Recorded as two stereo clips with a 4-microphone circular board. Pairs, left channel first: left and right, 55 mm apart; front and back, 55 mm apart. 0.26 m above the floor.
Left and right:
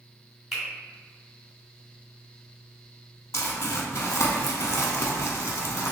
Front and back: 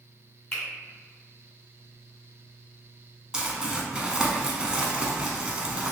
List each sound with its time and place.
0.5 s a finger snap: 15° right, 1.6 m
3.3 s crumpling: 105° left, 0.6 m